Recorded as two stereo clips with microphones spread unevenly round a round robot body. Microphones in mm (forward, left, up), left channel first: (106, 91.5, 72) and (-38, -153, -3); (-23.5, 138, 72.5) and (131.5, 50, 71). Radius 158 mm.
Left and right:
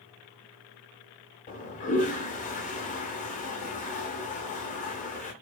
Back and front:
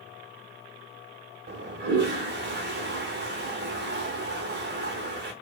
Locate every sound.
1.5 s a toilet flushing: 10° right, 0.6 m